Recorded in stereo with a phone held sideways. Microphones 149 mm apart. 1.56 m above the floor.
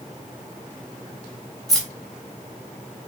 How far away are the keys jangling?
About 1.3 m.